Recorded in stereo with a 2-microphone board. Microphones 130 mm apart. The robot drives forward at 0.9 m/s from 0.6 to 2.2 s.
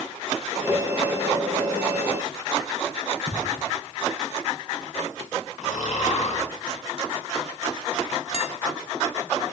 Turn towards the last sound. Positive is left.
turn(degrees=50)  # may be behind; listen again after turning